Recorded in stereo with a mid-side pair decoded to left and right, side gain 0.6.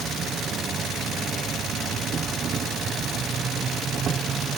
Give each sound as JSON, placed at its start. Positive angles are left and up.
{"t": 0.0, "sound": "an insect", "azimuth_deg": -45}